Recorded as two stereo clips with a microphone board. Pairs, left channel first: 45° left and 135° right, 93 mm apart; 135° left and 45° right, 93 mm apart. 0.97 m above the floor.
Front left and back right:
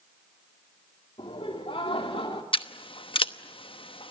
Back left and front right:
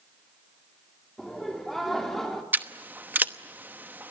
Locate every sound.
1.2 s laughter: 45° left, 2.5 m
2.5 s scissors: 25° left, 0.9 m